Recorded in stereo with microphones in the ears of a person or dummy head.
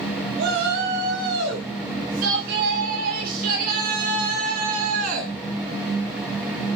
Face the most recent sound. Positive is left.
turn(degrees=-45)  # may be behind; listen again after turning